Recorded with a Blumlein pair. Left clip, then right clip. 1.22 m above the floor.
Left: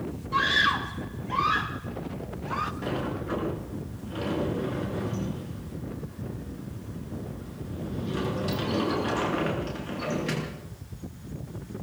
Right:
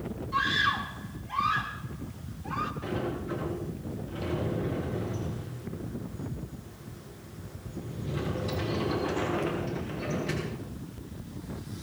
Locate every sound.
0.3 s a scream: 15° left, 1.7 m
2.8 s a sliding door: 60° left, 8 m